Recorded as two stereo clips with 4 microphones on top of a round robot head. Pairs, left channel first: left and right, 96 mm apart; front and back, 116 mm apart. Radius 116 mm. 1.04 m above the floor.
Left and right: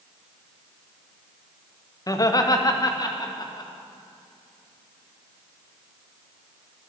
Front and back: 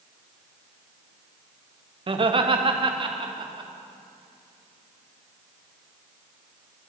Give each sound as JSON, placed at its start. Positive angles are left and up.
{"t": 2.1, "sound": "laughter", "azimuth_deg": 140, "distance_m": 1.6}